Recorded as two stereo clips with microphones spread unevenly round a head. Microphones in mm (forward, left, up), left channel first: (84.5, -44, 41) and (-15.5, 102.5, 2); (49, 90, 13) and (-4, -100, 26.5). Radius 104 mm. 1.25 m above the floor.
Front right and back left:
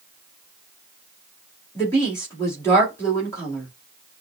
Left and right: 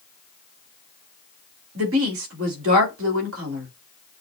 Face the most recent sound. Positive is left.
turn(degrees=-135)